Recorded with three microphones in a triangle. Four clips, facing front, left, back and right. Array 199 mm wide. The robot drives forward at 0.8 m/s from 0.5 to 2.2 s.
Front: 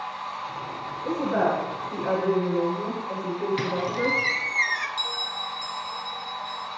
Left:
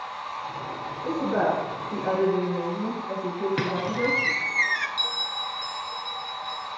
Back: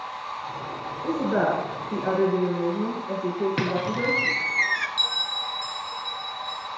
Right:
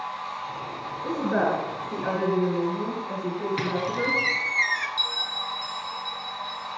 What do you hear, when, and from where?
1.0 s a woman speaking: 170° right, 2.5 m
3.6 s a squeak: 150° left, 0.9 m
5.0 s a bell: 130° left, 1.3 m